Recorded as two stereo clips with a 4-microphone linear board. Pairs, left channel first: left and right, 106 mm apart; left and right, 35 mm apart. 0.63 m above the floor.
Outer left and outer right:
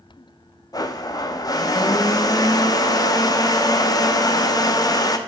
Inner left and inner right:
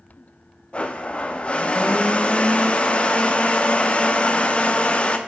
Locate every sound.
0.7 s a blender: 35° left (ahead or behind), 0.6 m